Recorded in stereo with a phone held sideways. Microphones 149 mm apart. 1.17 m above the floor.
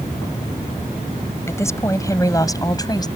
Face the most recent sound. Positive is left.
turn(degrees=25)  # may be behind; listen again after turning